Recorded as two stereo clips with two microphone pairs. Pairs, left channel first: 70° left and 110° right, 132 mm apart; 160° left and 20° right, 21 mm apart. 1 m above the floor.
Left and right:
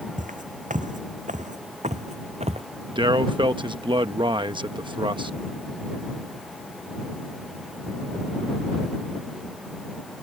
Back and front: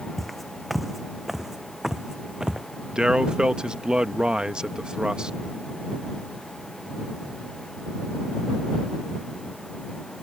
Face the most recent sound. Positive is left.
turn(degrees=-60)